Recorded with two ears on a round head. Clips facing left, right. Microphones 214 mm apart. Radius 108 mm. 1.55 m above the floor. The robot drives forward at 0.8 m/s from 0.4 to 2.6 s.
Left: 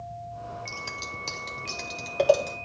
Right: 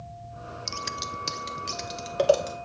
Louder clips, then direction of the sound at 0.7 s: Right 3 dB; 35° right (ahead or behind).